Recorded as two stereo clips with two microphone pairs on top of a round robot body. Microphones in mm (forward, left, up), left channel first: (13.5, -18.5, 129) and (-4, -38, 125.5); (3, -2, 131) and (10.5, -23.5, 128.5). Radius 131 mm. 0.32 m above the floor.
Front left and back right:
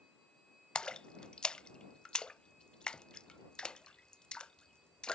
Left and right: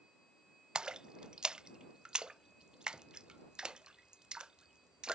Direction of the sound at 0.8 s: 10° right.